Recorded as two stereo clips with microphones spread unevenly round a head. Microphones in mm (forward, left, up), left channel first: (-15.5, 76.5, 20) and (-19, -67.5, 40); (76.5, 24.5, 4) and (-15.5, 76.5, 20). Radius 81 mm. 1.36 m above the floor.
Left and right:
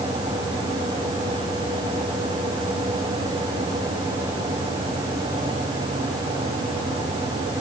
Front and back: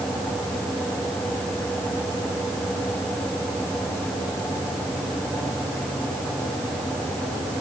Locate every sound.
Only background noise.